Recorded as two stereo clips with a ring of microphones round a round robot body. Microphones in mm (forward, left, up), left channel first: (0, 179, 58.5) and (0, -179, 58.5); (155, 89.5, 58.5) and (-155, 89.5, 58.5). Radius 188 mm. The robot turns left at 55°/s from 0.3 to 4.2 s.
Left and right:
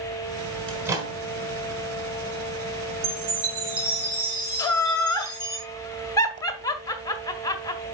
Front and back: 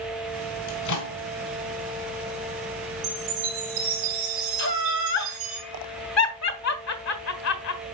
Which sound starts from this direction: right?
A chime, at 3.0 s.